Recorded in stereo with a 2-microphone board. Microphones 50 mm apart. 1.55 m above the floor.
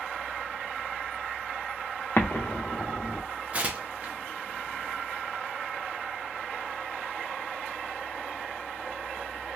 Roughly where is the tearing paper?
Right.